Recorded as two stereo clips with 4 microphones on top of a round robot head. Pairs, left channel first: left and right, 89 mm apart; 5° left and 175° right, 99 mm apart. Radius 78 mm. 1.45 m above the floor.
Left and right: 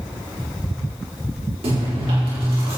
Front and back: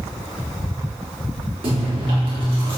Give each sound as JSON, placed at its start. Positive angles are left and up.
{"t": 1.6, "sound": "chewing", "azimuth_deg": -130, "distance_m": 4.0}